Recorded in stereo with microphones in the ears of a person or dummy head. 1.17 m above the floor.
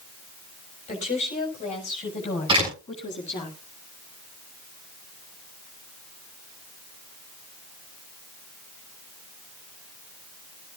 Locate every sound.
0.9 s a woman speaking: 30° left (ahead or behind), 6.5 m
2.5 s a door slam: 30° right (ahead or behind), 7.5 m